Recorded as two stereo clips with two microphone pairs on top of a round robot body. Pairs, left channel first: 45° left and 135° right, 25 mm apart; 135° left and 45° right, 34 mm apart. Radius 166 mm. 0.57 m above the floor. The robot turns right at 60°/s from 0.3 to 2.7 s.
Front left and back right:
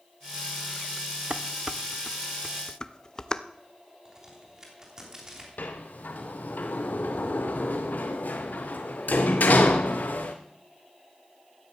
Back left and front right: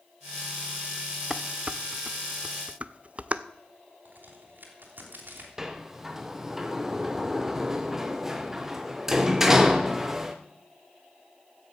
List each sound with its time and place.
1.3 s dishes clattering: 95° right, 0.8 m; by 3.4 s 10° right, 0.8 m
4.0 s a crack: 65° right, 3 m
5.6 s a sliding door: 40° left, 0.6 m